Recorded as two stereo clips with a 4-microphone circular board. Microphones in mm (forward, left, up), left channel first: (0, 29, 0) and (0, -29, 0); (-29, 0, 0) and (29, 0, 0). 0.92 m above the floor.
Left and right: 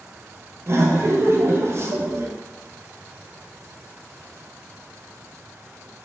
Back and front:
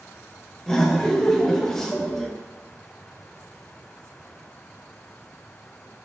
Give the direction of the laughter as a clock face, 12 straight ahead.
3 o'clock.